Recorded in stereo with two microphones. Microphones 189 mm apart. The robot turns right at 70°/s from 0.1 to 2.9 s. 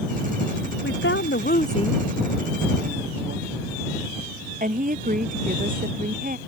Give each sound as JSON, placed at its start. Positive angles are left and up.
{"t": 0.8, "sound": "a woman speaking", "side_deg": 80}